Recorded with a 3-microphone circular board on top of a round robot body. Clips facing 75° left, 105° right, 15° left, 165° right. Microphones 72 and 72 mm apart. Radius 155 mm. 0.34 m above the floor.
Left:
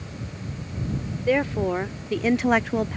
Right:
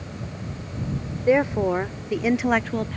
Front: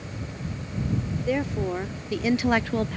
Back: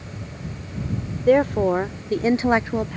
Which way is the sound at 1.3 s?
170° right.